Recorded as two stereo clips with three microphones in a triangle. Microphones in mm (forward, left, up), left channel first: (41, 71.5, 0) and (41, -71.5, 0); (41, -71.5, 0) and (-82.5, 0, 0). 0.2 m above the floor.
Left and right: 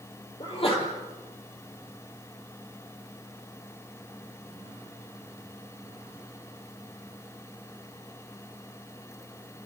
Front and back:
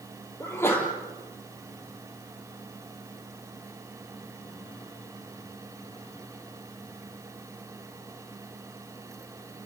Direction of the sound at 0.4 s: 40° left.